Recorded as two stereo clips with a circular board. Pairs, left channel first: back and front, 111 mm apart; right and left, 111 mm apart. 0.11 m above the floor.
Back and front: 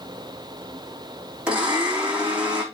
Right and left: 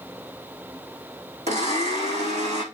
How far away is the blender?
About 4.5 m.